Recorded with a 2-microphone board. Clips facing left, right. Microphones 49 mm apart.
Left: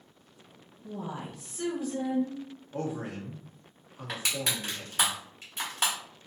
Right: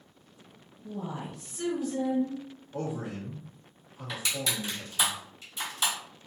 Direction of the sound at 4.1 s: 55° left (ahead or behind).